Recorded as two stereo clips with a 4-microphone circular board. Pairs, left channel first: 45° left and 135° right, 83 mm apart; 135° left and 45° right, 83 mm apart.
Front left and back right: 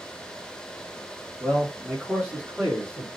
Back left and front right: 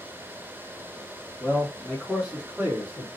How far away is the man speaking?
About 1.5 m.